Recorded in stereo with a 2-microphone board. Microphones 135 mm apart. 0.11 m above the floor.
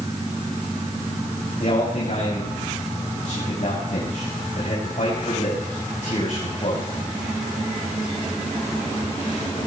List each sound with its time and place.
1.6 s a man speaking: 65° left (ahead or behind), 8.5 m